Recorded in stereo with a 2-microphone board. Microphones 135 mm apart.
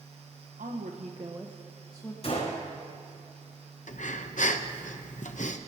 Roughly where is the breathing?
Left.